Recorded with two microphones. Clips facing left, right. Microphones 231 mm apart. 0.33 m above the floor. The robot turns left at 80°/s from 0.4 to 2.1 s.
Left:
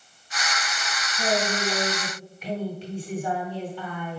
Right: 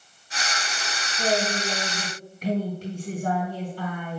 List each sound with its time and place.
1.2 s a woman speaking: 15° left, 2.5 m; by 4.2 s 60° right, 2.5 m